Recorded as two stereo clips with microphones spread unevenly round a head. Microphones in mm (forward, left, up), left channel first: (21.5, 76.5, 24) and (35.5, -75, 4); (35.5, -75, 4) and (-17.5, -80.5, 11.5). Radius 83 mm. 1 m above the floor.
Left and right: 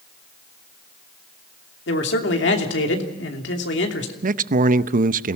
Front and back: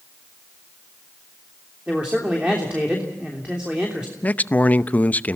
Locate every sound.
1.9 s a man speaking: 105° left, 3 m
4.2 s a man speaking: 55° right, 0.7 m